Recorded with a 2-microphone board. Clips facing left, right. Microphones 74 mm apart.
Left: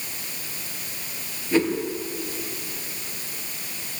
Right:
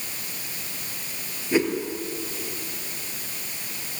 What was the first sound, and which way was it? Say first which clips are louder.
A whoosh: left 1 dB; 15° right (ahead or behind).